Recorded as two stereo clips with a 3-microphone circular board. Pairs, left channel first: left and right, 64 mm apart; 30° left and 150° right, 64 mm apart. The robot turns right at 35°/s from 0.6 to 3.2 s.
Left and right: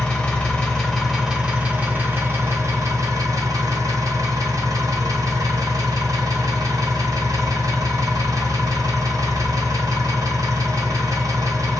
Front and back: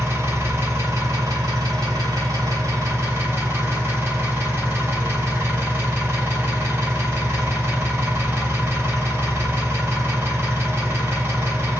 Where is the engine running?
160° left, 1.1 m; by 11.8 s 110° right, 1.1 m.